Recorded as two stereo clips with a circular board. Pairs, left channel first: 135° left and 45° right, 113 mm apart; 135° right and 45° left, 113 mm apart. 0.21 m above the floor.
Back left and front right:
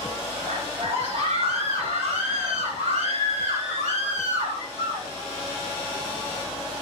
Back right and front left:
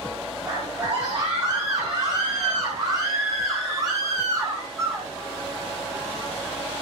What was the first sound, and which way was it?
A scream, 35° right.